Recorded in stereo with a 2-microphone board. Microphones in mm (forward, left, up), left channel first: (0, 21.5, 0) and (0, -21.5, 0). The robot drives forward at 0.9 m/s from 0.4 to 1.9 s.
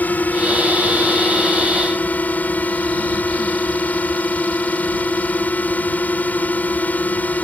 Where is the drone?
40° left (ahead or behind).